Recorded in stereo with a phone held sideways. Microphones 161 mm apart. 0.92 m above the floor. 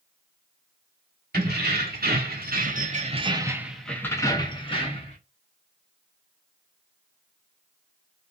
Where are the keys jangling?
85° right, 1.2 m; by 5.2 s 40° left (ahead or behind), 1.0 m.